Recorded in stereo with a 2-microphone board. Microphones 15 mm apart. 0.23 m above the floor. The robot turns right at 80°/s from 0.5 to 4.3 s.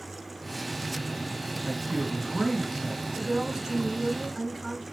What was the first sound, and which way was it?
A man speaking, 65° right.